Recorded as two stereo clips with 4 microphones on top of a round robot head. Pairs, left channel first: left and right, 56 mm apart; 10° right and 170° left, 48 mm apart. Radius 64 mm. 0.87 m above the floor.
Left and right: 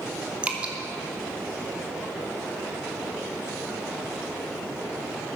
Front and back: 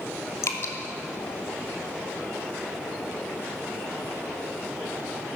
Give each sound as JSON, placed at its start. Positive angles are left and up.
{"t": 0.4, "sound": "dripping", "azimuth_deg": -25, "distance_m": 1.5}